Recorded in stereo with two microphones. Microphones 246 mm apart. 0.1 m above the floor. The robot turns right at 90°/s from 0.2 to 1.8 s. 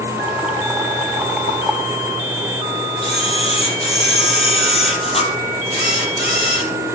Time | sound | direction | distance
3.0 | a camera shutter | 25° left (ahead or behind) | 3.5 m